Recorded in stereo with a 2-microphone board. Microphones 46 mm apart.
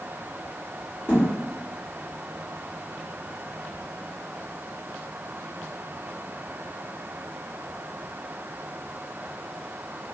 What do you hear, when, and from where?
1.1 s a thud: 50° left (ahead or behind), 1.6 m